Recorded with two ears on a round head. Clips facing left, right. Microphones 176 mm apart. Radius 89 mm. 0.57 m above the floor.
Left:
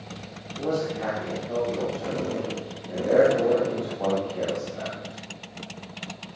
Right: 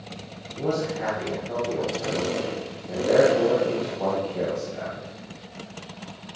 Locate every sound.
0.6 s a man speaking: 15° right (ahead or behind), 4 m